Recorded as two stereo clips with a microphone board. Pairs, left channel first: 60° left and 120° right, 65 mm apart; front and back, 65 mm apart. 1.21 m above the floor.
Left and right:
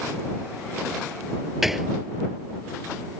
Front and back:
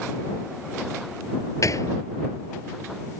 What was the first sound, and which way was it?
A gunshot, 35° right.